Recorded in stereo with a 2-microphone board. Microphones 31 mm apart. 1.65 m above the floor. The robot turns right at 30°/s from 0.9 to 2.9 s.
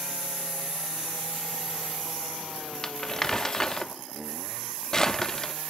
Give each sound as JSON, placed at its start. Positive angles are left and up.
{"t": 2.8, "sound": "crumpling", "side_deg": 20, "distance_m": 0.9}